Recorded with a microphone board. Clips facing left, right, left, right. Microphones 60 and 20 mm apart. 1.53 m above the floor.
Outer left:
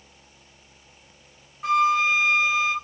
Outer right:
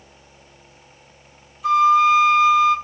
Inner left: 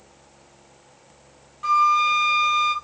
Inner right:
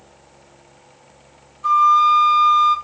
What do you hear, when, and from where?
1.6 s a flute: 55° left (ahead or behind), 2 m